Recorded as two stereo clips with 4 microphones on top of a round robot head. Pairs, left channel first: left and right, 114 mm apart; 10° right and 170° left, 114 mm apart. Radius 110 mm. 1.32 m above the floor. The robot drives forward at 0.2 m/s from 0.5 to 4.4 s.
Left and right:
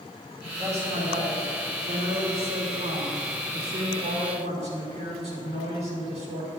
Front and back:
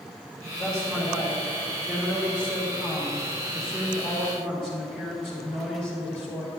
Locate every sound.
0.6 s a man speaking: 95° right, 4 m; by 6.5 s 105° right, 4 m